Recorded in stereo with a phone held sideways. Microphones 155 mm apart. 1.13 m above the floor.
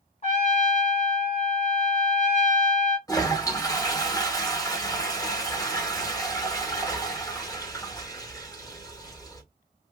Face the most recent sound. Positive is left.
turn(degrees=20)  # may be behind; listen again after turning